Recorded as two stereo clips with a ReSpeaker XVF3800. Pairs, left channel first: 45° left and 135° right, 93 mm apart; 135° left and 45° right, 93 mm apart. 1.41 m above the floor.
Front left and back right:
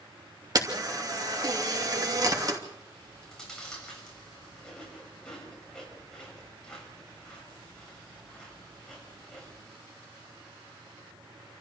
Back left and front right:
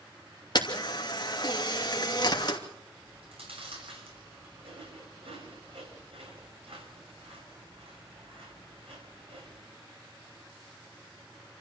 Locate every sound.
0.6 s a camera shutter: 175° left, 2.5 m
3.0 s chewing: 40° right, 6.5 m